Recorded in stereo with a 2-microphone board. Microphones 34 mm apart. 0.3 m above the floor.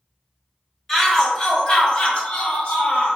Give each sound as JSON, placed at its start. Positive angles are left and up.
{"t": 0.9, "sound": "a shout", "side_deg": 15, "distance_m": 1.2}